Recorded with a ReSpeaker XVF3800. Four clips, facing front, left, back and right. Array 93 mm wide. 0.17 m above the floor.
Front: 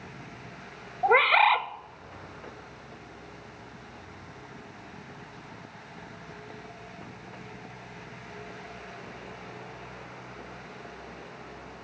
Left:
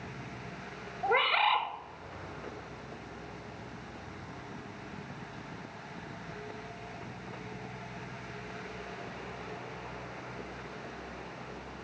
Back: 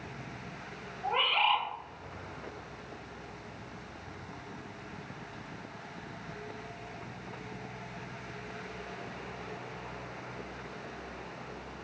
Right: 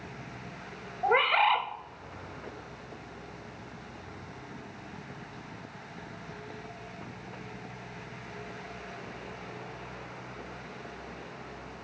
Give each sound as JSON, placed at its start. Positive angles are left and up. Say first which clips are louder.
{"t": 1.0, "sound": "a bird", "louder": "right 3 dB, front 9 dB", "azimuth_deg": -10, "distance_m": 0.7}